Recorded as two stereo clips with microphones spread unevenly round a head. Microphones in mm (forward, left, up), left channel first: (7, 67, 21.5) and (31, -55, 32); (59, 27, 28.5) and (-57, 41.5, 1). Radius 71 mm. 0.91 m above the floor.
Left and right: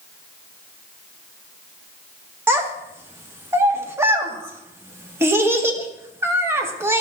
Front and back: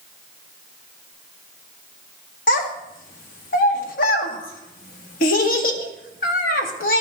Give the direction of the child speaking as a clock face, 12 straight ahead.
12 o'clock.